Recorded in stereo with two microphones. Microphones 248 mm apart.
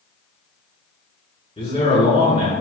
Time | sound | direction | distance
1.6 | a man speaking | 25° left (ahead or behind) | 1.2 m